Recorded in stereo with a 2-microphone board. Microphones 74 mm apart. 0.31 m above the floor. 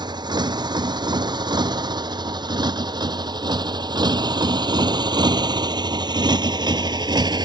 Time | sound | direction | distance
0.0 | a motorcycle | 85° right | ?